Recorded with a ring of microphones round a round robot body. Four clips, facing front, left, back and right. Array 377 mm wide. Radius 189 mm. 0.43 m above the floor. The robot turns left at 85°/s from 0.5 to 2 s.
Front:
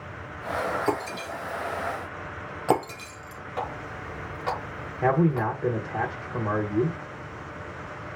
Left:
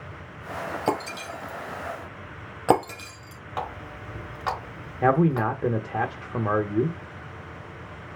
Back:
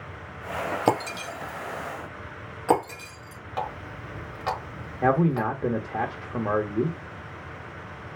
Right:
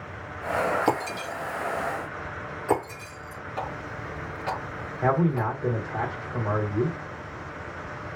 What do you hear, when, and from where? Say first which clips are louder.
0.9 s breaking glass: right 1 dB, back 3 dB; straight behind, 2 m; by 3.4 s 85° left, 2 m
3.6 s a running tap: left 1 dB, back 1 dB; 110° left, 3 m
5.0 s a man speaking: left 3 dB, even; 115° left, 0.8 m